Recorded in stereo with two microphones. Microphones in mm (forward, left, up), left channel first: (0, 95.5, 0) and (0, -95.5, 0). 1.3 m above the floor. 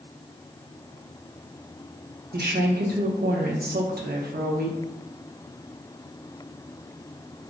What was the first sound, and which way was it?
A woman speaking, 65° right (ahead or behind).